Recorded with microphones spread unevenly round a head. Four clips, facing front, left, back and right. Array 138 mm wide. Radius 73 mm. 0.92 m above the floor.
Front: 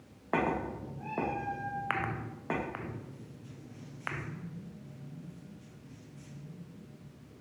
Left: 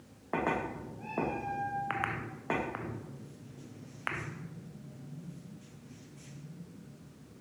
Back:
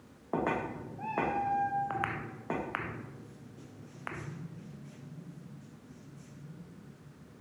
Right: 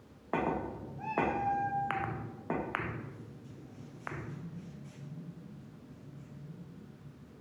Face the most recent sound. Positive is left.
turn(degrees=-175)